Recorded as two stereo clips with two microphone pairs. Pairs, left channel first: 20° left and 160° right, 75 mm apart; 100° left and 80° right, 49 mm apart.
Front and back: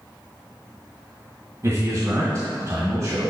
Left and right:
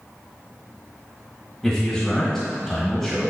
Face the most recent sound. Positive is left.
turn(degrees=-175)